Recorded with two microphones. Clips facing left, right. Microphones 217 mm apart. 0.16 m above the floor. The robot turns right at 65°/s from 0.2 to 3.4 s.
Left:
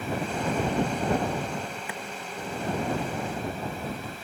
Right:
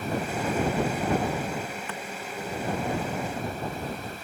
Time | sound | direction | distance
1.9 | a clap | 10° left (ahead or behind) | ?